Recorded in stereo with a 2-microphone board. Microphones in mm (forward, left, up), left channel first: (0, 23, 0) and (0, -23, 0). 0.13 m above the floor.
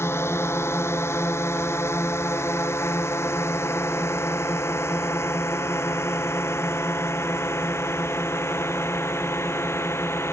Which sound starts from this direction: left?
A drone, at 0.0 s.